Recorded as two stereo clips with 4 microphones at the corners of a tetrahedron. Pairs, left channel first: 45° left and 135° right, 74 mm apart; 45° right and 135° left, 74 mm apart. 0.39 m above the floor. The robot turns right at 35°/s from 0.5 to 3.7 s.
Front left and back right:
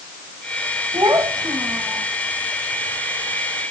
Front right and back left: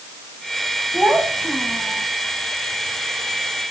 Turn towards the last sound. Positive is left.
turn(degrees=-50)